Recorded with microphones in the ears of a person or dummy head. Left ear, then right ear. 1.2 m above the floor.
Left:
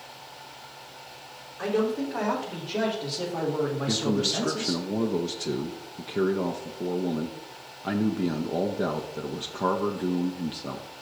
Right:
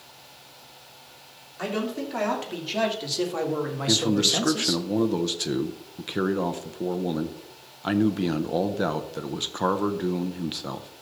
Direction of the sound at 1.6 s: 85° right.